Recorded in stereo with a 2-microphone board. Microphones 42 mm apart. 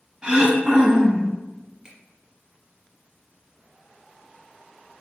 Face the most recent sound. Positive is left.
turn(degrees=-15)  # may be behind; listen again after turning